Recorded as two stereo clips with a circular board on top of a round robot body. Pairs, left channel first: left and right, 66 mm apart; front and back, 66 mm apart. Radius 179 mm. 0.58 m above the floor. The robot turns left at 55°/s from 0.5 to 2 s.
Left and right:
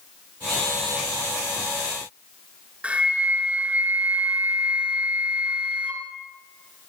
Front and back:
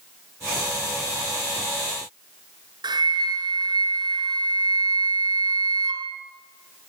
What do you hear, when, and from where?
2.8 s a flute: 165° right, 2.5 m